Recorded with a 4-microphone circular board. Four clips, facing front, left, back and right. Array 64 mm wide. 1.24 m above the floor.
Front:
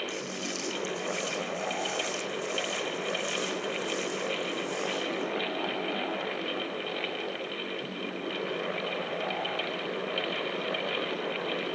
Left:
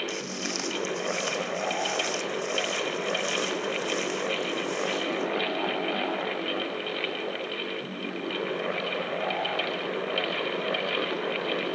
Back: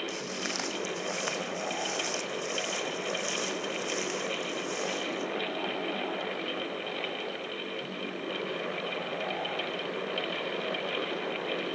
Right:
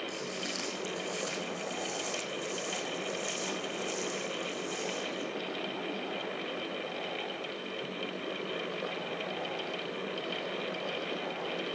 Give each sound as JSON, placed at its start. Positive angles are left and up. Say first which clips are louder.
{"t": 0.1, "sound": "footsteps", "louder": "left 5 dB, even", "azimuth_deg": 160, "distance_m": 3.5}